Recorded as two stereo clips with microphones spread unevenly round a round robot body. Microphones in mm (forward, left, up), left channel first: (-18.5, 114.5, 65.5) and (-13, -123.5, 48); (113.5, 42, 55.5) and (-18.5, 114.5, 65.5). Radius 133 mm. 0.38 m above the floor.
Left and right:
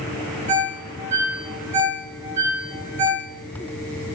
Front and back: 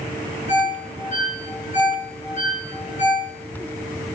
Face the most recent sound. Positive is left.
turn(degrees=-80)